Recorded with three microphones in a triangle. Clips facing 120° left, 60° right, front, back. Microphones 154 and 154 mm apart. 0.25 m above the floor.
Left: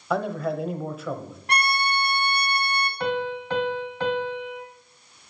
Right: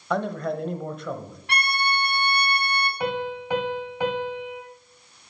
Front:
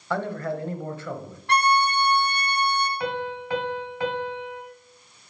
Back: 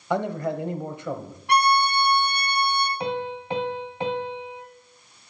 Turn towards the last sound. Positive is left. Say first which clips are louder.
# left 3 dB, back 1 dB
turn(degrees=-130)